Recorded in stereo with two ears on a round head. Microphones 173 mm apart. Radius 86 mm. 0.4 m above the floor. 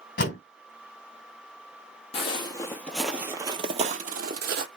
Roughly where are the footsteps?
Left.